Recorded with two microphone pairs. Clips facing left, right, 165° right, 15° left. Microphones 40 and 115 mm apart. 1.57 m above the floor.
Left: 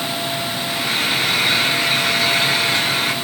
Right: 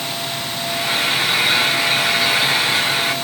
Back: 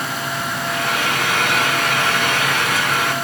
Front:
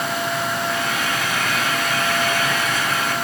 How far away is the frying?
About 5 m.